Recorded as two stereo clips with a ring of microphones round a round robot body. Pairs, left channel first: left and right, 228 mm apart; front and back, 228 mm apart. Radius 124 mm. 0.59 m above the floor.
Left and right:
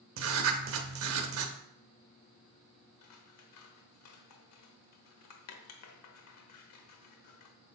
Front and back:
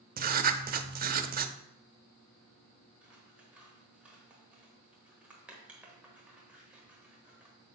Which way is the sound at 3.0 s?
95° left.